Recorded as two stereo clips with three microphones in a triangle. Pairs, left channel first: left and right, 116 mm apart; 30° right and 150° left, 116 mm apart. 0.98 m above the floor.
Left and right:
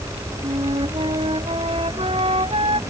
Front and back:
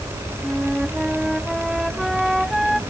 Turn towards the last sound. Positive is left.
turn(degrees=-120)